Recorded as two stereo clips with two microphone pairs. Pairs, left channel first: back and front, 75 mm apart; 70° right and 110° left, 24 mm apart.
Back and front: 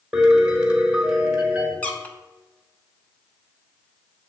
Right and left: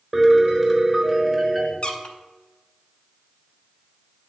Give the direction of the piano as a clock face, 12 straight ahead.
11 o'clock.